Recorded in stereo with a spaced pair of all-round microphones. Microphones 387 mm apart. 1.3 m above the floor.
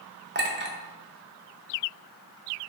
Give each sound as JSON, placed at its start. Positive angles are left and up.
{"t": 0.3, "sound": "a clink", "side_deg": -30, "distance_m": 0.6}